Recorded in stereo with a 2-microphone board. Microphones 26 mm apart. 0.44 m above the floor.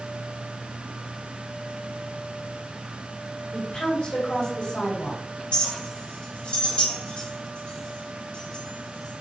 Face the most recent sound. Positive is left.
turn(degrees=50)  # may be behind; listen again after turning